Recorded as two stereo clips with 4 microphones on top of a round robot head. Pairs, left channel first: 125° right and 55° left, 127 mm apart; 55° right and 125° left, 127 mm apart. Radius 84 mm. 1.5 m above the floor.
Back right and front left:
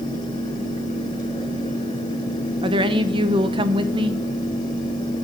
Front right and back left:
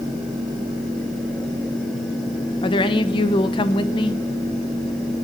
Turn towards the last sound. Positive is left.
turn(degrees=0)